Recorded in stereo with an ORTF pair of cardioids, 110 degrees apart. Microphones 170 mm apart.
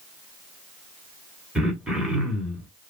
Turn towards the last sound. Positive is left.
turn(degrees=-5)